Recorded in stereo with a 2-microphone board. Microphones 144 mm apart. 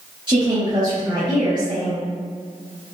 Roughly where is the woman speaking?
Right.